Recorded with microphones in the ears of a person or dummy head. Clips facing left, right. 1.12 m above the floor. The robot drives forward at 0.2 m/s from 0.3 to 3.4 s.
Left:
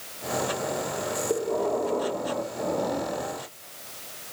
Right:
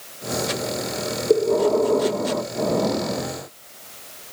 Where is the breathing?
55° right (ahead or behind), 1.1 m; by 3.4 s 70° right (ahead or behind), 0.9 m.